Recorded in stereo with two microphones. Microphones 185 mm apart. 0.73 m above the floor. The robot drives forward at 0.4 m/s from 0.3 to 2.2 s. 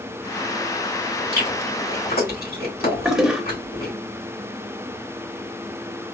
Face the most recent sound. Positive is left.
turn(degrees=-5)  # may be behind; listen again after turning